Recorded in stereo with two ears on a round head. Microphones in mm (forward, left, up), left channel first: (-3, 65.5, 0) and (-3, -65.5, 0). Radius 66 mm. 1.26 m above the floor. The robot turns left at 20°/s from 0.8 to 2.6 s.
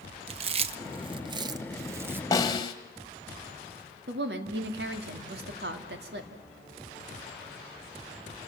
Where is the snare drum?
20° left (ahead or behind), 1.6 m; by 2.7 s 30° left (ahead or behind), 1.6 m.